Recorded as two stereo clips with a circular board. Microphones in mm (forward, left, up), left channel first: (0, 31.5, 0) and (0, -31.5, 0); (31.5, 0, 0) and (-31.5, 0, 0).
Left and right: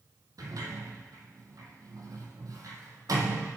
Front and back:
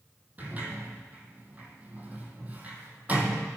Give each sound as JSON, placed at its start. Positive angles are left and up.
{"t": 0.4, "sound": "a sliding door", "azimuth_deg": -115, "distance_m": 1.4}